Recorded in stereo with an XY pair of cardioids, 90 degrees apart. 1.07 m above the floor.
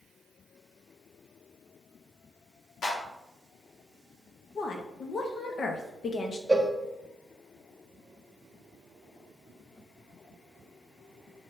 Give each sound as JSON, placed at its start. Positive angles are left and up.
{"t": 2.8, "sound": "a clap", "azimuth_deg": 65, "distance_m": 1.4}
{"t": 4.5, "sound": "a woman speaking", "azimuth_deg": 55, "distance_m": 0.8}
{"t": 6.5, "sound": "a cowbell", "azimuth_deg": -10, "distance_m": 0.7}